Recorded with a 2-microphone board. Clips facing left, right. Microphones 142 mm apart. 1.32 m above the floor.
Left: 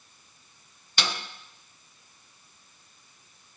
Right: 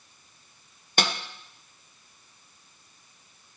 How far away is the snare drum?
About 0.7 m.